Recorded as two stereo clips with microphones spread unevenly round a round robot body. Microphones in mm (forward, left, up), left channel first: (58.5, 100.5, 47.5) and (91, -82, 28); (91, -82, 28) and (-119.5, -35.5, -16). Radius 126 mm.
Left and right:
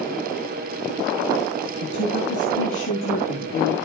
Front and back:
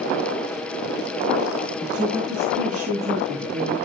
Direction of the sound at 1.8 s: 90° left.